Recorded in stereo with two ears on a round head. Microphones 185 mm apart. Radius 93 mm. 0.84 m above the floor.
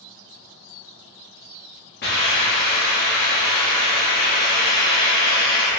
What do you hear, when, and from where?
2.0 s a hiss: 50° left (ahead or behind), 1.1 m